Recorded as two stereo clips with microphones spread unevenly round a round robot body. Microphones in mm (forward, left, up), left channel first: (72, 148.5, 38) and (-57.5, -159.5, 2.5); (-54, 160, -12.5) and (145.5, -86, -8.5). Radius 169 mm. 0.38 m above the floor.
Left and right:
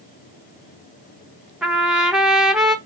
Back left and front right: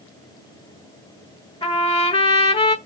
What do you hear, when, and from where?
1.6 s a trumpet: 175° left, 1.0 m